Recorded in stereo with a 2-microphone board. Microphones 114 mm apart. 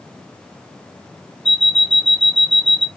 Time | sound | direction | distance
1.4 | an alarm clock | 50° left (ahead or behind) | 0.6 m